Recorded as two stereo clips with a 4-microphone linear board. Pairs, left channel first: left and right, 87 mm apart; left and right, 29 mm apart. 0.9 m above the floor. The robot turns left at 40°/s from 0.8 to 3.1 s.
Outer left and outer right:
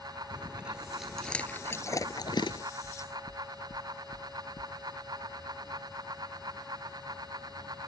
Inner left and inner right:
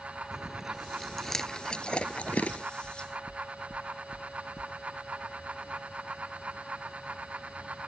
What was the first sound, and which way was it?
Chewing, 10° right (ahead or behind).